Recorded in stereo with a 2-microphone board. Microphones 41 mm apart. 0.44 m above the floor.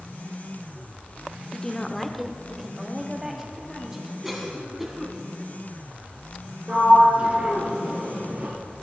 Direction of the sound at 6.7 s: 35° right (ahead or behind).